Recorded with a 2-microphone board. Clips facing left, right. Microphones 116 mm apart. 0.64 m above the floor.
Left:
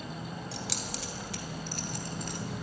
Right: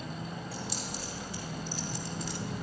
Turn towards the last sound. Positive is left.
turn(degrees=50)  # may be behind; listen again after turning